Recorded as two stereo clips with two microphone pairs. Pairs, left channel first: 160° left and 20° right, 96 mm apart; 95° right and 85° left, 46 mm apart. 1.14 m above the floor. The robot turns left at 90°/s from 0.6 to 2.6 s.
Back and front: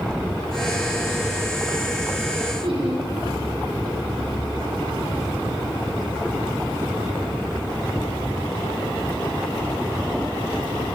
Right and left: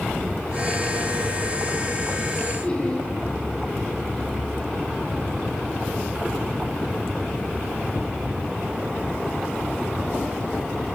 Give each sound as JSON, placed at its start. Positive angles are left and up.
{"t": 2.6, "sound": "laughter", "azimuth_deg": -30, "distance_m": 8.5}